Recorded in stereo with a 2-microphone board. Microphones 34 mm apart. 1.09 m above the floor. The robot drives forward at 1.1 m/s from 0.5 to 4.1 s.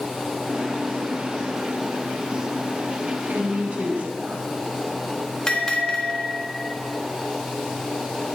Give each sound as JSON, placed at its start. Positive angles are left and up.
{"t": 3.3, "sound": "a woman speaking", "side_deg": -60, "distance_m": 2.0}
{"t": 5.5, "sound": "a bell", "side_deg": 25, "distance_m": 1.7}